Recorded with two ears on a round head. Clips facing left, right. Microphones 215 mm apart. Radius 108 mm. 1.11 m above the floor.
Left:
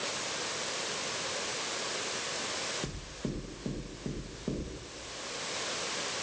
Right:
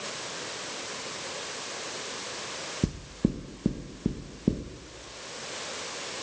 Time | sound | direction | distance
2.8 | knocking | 50° right (ahead or behind) | 0.8 m